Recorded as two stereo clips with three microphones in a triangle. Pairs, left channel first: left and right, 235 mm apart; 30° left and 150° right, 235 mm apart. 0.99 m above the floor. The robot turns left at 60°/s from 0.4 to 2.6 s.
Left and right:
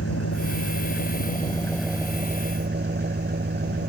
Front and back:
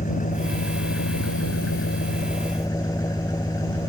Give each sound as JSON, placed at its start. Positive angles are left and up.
{"t": 0.0, "sound": "an engine running", "azimuth_deg": 85}